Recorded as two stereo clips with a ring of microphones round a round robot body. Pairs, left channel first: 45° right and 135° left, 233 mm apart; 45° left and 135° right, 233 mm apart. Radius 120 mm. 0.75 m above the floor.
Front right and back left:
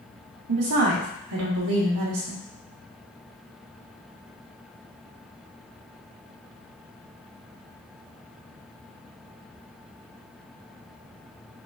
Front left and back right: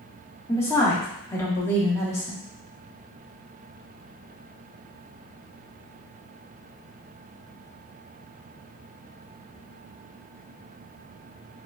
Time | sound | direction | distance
0.5 | a woman speaking | 125° left | 1.3 m